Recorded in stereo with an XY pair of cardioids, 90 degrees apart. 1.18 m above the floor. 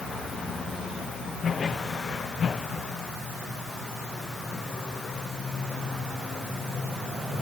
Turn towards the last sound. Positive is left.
No sound to turn to.